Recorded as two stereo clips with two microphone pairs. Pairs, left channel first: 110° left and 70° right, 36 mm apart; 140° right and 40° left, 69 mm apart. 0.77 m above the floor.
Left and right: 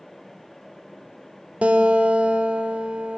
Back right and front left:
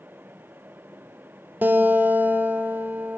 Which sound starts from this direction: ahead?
A guitar, at 1.6 s.